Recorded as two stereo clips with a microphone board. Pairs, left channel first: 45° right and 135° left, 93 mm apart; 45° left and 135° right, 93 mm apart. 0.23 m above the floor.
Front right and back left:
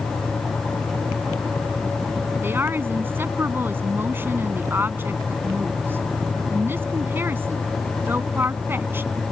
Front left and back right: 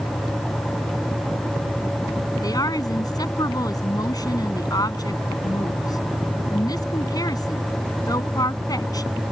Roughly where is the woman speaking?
Left.